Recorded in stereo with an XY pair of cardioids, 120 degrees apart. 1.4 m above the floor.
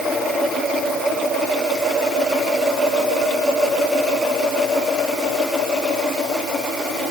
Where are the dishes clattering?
No dishes clattering in this recording.